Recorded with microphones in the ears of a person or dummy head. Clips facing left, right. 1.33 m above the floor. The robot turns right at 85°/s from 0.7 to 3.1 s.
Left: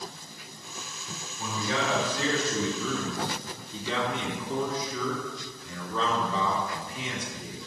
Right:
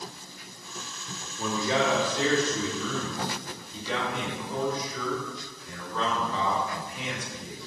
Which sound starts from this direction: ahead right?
A man speaking, at 1.4 s.